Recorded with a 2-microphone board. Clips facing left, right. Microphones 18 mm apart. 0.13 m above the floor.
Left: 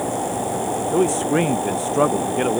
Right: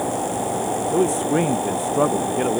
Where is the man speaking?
30° left (ahead or behind).